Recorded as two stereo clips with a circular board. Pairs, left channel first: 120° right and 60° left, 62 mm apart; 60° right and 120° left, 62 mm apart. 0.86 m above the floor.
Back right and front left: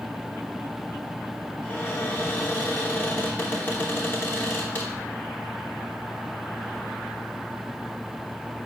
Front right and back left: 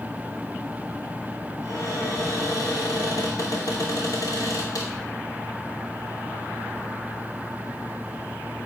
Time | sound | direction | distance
1.6 | a cupboard door | 60° right | 3 m